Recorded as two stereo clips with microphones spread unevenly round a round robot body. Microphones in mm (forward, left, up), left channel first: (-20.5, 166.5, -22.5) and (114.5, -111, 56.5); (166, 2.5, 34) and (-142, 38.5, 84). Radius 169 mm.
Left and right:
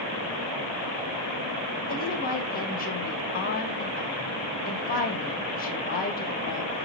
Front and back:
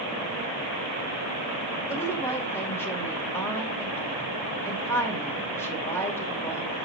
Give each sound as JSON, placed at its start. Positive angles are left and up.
{"t": 1.9, "sound": "a woman speaking", "azimuth_deg": 70, "distance_m": 2.5}